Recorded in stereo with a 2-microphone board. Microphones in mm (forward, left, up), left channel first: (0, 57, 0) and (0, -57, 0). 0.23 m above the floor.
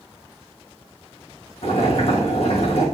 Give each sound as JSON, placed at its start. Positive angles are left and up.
{"t": 1.6, "sound": "boiling", "side_deg": 65, "distance_m": 4.0}